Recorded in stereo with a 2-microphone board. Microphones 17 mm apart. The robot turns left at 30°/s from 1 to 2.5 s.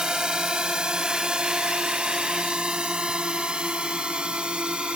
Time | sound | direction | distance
0.0 | a drone | 50° right (ahead or behind) | ?